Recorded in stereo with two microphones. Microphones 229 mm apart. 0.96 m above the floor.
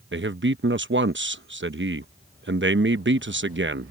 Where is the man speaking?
55° right (ahead or behind).